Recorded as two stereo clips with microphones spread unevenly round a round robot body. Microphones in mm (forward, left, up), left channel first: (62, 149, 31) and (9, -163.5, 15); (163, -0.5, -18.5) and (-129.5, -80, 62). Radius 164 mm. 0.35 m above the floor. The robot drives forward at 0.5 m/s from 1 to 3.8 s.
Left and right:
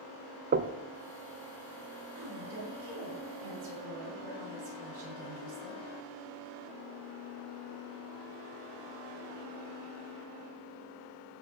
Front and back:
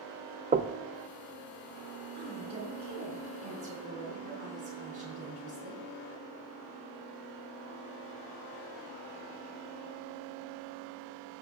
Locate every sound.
0.5 s knocking: 85° right, 0.6 m
2.1 s a woman speaking: 85° right, 6 m; by 5.8 s 95° right, 6 m